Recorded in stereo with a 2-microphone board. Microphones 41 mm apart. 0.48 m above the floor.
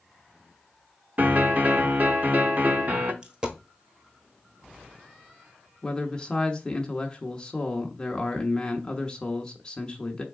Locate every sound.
1.2 s a piano: 45° right (ahead or behind), 0.6 m
3.2 s a dropped coin: 25° right (ahead or behind), 0.9 m
5.8 s a man speaking: 25° left (ahead or behind), 0.9 m